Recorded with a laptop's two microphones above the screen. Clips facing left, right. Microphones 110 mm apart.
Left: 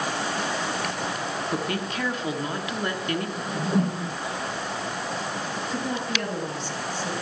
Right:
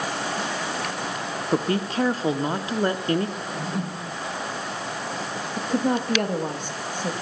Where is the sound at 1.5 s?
35° right (ahead or behind), 0.8 m.